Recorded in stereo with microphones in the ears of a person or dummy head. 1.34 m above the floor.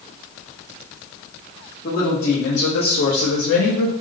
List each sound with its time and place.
1.8 s a woman speaking: 45° left (ahead or behind), 1.1 m; by 3.9 s 60° left (ahead or behind), 0.7 m